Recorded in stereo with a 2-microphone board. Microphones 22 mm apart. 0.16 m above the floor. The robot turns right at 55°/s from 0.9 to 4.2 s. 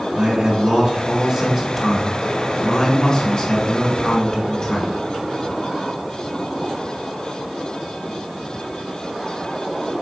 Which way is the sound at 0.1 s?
20° right (ahead or behind).